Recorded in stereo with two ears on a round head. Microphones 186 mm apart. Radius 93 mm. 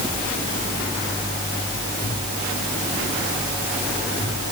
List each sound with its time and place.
Only background noise.